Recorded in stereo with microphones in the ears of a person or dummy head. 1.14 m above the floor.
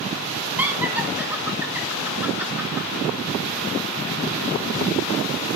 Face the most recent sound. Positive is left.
turn(degrees=-10)  # may be behind; listen again after turning